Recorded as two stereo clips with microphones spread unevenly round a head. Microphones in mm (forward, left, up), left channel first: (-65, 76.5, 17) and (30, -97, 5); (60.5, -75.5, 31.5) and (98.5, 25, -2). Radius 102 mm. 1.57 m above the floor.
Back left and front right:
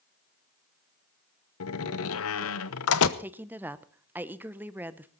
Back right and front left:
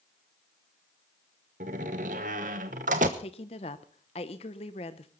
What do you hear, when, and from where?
1.6 s a door slam: 120° left, 1.0 m
3.2 s a woman speaking: 145° right, 0.9 m